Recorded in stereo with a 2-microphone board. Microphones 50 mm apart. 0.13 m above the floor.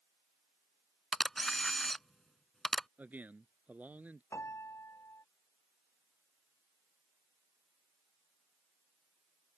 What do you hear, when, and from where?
1.1 s a camera shutter: 5° left (ahead or behind)
3.0 s a man speaking: 35° right (ahead or behind)
4.3 s a piano: 80° left